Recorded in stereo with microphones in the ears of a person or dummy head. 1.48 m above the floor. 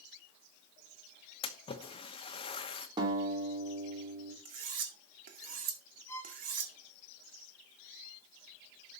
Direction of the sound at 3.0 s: 20° right (ahead or behind).